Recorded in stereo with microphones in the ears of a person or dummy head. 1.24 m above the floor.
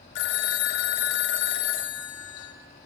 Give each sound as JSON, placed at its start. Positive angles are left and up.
{"t": 0.1, "sound": "a phone ringing", "side_deg": 60, "distance_m": 0.7}